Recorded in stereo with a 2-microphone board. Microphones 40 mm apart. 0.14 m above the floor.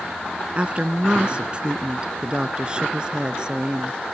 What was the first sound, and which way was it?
A woman speaking, 30° right (ahead or behind).